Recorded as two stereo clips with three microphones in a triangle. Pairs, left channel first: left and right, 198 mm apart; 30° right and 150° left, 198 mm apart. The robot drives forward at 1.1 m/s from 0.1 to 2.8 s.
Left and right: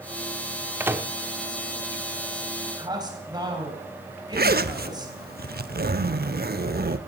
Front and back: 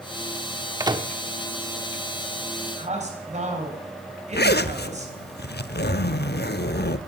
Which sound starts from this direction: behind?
A man speaking, at 2.8 s.